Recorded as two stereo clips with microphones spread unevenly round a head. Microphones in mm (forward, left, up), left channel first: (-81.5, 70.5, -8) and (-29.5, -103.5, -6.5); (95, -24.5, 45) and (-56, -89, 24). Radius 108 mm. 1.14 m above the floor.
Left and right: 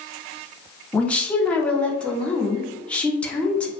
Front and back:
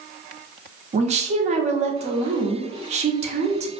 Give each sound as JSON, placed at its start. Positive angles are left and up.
{"t": 0.9, "sound": "a woman speaking", "azimuth_deg": -170, "distance_m": 0.6}